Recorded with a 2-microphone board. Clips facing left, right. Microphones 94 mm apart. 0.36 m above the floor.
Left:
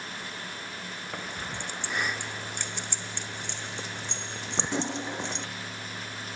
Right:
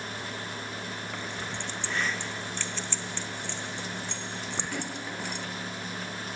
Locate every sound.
1.1 s keys jangling: 15° left (ahead or behind); by 5.5 s 25° left (ahead or behind)